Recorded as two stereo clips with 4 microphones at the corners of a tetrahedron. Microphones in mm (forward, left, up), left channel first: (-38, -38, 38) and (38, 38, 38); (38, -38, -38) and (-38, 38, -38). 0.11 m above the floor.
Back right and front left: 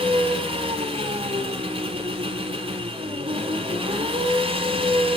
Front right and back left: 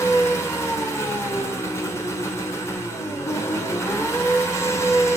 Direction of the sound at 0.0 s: 20° left.